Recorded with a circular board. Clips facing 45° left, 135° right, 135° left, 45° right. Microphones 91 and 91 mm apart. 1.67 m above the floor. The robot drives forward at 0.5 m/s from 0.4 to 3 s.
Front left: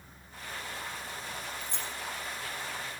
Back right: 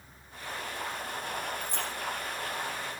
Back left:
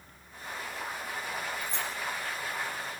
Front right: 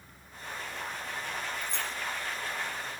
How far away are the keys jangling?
About 1.7 m.